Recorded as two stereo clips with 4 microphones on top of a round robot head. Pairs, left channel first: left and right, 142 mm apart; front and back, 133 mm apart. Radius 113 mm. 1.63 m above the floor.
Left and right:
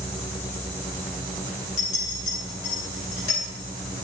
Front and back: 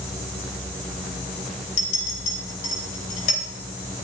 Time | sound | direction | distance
1.8 | a clink | 35° left | 2.5 m